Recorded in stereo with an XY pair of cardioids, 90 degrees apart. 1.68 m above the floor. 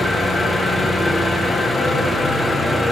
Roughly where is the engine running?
Ahead.